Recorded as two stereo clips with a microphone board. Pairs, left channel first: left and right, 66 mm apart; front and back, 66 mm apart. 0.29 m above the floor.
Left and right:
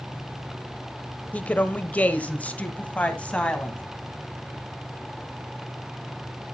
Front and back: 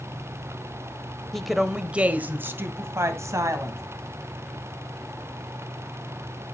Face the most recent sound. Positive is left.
turn(degrees=160)